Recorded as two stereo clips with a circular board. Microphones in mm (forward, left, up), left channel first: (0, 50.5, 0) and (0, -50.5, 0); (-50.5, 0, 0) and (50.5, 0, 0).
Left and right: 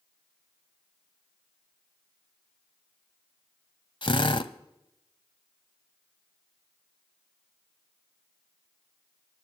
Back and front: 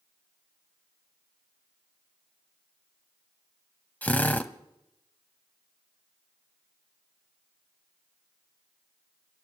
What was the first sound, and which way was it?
A drill, 110° left.